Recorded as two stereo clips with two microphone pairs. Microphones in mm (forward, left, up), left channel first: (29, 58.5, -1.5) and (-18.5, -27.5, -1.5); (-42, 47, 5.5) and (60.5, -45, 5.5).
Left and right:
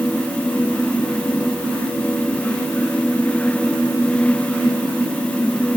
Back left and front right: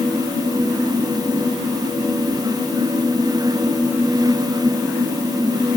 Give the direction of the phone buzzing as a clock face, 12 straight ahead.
I don't hear a phone buzzing.